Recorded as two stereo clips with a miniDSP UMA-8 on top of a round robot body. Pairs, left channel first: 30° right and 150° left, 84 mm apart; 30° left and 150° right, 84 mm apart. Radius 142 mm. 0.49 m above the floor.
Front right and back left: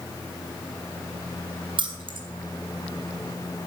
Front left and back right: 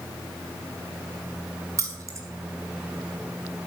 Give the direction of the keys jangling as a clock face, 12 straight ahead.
7 o'clock.